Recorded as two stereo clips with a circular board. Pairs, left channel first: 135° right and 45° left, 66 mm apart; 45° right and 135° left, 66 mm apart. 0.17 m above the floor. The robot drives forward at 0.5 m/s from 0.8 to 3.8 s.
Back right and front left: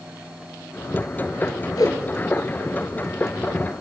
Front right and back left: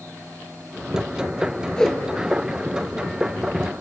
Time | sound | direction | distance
1.8 | a whoosh | 125° right | 0.9 m